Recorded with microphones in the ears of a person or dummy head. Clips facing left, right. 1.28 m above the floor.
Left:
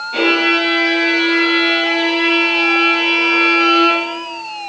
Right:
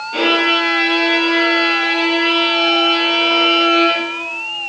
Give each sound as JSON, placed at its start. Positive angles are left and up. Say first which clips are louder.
{"t": 0.1, "sound": "a violin", "louder": "left 1 dB", "side_deg": -10, "distance_m": 3.5}